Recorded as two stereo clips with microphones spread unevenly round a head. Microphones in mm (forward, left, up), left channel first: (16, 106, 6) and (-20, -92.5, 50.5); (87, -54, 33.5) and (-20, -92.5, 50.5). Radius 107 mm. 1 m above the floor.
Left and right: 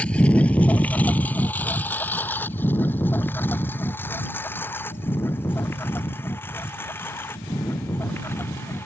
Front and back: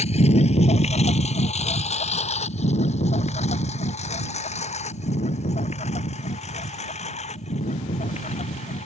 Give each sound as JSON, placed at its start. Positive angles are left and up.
{"t": 0.0, "sound": "a lawn mower", "azimuth_deg": -10}